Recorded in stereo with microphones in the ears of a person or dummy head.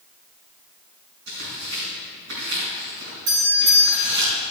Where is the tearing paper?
55° right (ahead or behind), 5 m.